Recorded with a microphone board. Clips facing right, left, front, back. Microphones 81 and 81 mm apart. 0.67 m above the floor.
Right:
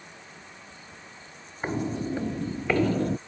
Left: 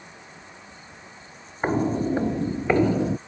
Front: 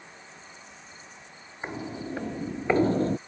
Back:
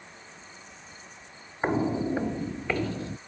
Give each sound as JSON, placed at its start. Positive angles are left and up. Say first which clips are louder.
{"t": 1.6, "sound": "footsteps", "louder": "left 6 dB, back 9 dB", "azimuth_deg": 135}